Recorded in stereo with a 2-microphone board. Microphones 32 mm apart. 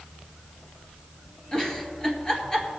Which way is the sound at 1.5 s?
25° left (ahead or behind).